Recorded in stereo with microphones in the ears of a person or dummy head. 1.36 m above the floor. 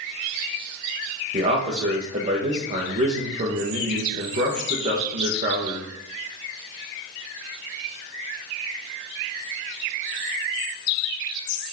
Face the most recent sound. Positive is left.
turn(degrees=-35)  # may be behind; listen again after turning